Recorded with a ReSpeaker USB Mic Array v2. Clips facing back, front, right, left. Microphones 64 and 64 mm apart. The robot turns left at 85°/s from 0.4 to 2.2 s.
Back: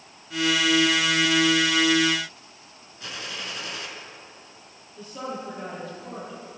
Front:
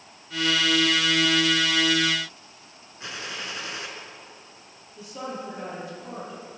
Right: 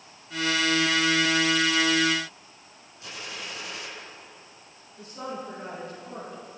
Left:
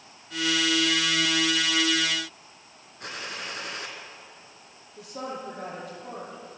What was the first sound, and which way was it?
A gunshot, 65° left.